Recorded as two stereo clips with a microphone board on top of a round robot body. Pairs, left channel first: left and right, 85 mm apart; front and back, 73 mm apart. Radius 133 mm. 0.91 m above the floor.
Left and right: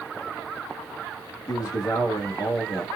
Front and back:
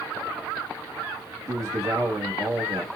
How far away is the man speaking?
About 1.2 m.